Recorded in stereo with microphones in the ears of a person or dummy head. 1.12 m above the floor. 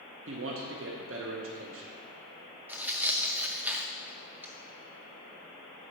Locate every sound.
0.3 s a man speaking: 60° right (ahead or behind), 0.8 m
2.7 s tearing paper: 10° right (ahead or behind), 0.5 m